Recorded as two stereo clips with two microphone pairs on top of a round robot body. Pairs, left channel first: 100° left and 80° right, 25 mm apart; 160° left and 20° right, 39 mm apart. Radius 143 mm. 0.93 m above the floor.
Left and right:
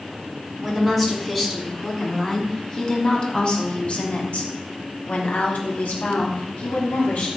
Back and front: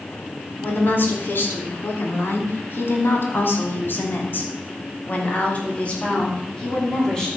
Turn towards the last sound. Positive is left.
turn(degrees=90)